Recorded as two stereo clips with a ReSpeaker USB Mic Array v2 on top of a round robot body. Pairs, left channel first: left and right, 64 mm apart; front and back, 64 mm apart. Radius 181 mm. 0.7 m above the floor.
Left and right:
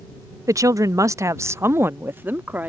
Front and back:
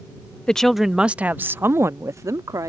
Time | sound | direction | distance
0.5 | a woman speaking | 75° right | ?